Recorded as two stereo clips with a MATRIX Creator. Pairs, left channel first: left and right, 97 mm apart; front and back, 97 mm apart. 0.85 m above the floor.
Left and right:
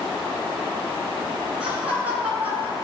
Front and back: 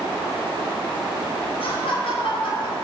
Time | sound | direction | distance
1.6 | laughter | 15° right | 4 m